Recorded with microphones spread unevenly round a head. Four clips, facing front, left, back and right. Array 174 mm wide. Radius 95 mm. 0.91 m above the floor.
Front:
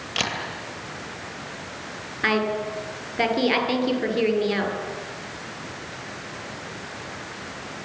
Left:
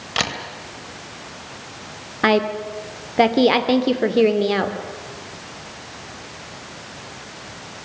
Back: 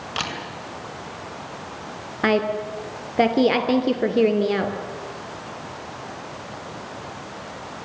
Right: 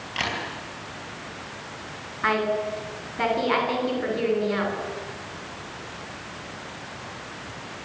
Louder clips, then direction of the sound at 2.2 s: Left 5 dB, back 3 dB; 120° left.